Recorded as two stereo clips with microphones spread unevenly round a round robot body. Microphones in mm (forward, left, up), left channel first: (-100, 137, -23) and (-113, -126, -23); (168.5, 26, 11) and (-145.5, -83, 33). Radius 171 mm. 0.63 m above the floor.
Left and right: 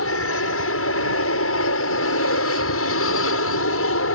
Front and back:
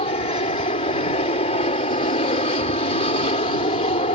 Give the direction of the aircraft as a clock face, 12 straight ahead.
9 o'clock.